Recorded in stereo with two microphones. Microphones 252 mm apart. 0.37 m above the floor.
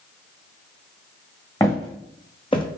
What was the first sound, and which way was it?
Footsteps, 15° left (ahead or behind).